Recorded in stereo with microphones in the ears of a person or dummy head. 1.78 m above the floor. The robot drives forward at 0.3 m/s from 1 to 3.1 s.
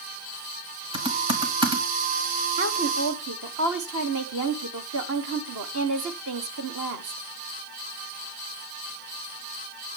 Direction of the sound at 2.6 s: 55° right (ahead or behind).